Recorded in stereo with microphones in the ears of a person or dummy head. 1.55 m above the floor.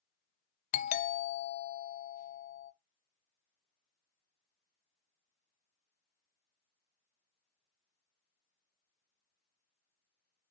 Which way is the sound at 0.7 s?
40° left (ahead or behind).